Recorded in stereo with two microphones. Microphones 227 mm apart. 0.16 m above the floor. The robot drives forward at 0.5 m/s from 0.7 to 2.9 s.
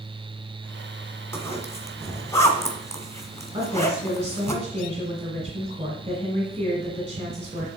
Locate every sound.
1.3 s a zipper: 10° left (ahead or behind), 1.3 m; by 4.5 s 15° left (ahead or behind), 1.2 m
3.5 s a woman speaking: 30° right (ahead or behind), 1.5 m